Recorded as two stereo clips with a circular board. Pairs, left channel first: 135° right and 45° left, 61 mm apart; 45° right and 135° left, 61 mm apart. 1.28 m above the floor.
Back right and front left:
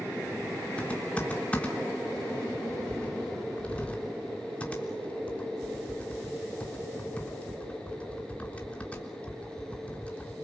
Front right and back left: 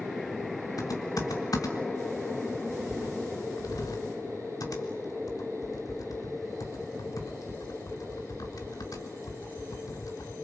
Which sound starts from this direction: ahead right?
Typing on a keyboard, at 0.8 s.